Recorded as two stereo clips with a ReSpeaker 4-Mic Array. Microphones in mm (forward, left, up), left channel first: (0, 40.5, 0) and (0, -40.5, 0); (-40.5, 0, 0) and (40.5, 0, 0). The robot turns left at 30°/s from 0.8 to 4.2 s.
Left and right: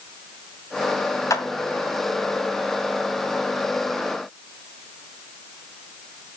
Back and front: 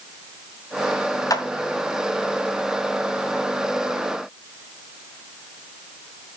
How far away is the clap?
About 2 m.